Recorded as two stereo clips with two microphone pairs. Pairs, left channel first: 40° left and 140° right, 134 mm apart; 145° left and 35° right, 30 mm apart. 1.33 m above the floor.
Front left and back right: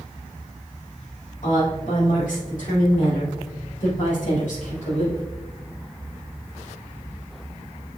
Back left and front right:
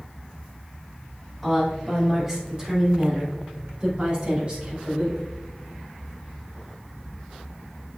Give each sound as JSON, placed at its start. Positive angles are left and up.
{"t": 1.4, "sound": "a woman speaking", "azimuth_deg": 50, "distance_m": 3.0}